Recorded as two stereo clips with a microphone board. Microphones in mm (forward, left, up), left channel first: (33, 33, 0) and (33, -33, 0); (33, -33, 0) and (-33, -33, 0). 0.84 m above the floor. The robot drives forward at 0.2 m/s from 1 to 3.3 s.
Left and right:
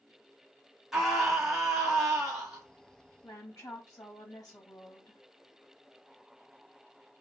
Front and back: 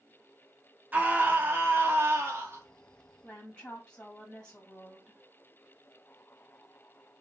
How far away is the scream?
About 0.6 m.